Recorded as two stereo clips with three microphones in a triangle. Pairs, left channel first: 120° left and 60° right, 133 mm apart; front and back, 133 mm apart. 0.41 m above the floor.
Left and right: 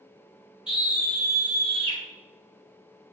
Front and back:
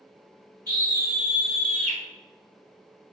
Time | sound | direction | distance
0.7 | a scream | 140° left | 1.1 m